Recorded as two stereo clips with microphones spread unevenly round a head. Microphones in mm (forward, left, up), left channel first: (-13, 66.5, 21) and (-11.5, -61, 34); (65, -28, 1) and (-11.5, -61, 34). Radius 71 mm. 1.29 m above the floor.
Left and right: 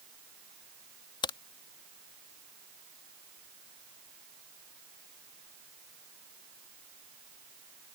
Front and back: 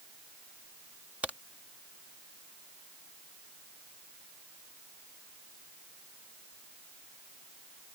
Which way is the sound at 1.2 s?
145° left.